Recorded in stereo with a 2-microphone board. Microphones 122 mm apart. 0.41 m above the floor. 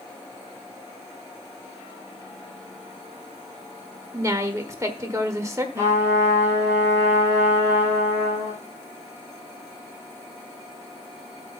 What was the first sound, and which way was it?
A woman speaking, 25° right (ahead or behind).